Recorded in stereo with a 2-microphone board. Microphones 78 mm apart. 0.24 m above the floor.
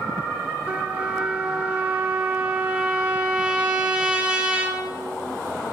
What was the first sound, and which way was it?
A trumpet, 20° right (ahead or behind).